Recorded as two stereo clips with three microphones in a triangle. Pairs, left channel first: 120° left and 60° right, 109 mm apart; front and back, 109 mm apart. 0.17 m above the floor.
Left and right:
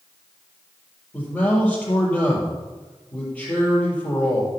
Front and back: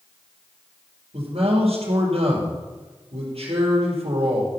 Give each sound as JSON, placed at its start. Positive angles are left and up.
{"t": 1.1, "sound": "a man speaking", "azimuth_deg": -165, "distance_m": 4.5}